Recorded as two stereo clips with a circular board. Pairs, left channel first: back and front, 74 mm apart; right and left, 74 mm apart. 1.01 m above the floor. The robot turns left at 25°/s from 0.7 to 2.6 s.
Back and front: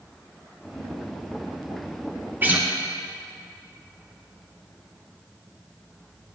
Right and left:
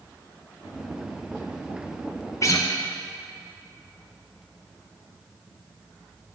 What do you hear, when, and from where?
2.4 s a guitar: 60° right, 0.6 m